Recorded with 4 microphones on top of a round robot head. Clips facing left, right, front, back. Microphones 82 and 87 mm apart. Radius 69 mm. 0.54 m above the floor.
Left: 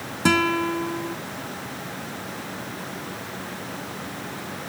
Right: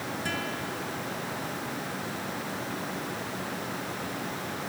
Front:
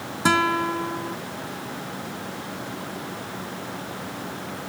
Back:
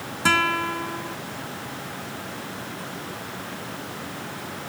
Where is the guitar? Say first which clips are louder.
Left 17 dB, front 2 dB; 70° left.